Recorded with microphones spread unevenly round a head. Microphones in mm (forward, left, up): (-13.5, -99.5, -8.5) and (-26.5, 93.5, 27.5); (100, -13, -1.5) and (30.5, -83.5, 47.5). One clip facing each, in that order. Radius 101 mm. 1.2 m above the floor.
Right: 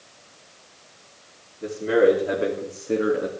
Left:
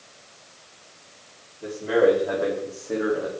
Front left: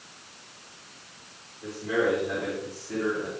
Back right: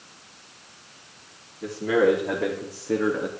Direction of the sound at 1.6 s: 145° right.